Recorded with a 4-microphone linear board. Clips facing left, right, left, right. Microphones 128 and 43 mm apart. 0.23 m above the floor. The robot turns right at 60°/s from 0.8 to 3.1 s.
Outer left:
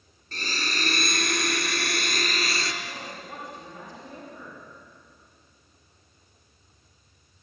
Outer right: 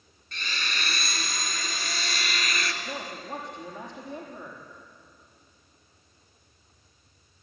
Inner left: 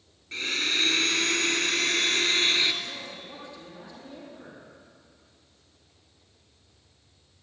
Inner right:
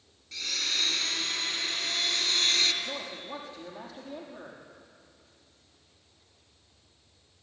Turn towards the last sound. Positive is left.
turn(degrees=-20)  # may be behind; listen again after turning